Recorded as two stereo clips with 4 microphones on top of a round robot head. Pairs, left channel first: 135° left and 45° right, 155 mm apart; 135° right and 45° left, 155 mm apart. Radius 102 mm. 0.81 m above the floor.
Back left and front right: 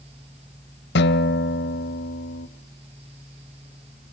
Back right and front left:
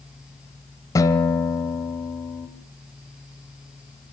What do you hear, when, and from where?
0.9 s a guitar: 155° left, 1.3 m